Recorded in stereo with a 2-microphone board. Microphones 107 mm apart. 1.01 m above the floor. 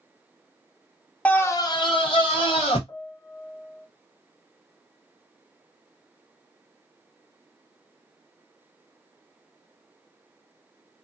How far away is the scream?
About 0.5 m.